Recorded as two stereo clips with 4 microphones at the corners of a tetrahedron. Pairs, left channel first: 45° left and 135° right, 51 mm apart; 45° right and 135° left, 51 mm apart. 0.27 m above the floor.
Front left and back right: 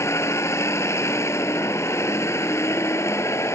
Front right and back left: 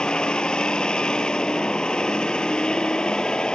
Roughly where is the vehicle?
Ahead left.